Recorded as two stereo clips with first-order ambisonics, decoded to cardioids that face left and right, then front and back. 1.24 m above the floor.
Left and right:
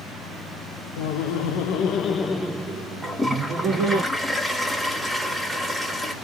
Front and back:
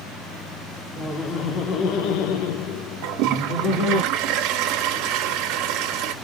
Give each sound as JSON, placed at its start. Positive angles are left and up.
{"t": 1.0, "sound": "laughter", "azimuth_deg": 75, "distance_m": 0.9}
{"t": 3.0, "sound": "a toilet flushing", "azimuth_deg": -175, "distance_m": 0.6}